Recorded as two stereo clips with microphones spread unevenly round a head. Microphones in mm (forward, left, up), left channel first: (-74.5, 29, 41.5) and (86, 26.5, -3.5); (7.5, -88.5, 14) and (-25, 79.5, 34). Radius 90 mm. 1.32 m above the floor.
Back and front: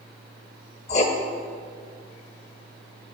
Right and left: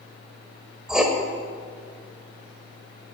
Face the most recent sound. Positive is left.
turn(degrees=180)